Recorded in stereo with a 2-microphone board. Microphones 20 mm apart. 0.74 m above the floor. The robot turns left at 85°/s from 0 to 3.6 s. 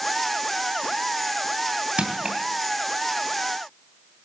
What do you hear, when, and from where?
2.0 s crushing: 70° right (ahead or behind), 2.5 m; by 2.4 s 35° right (ahead or behind), 2.5 m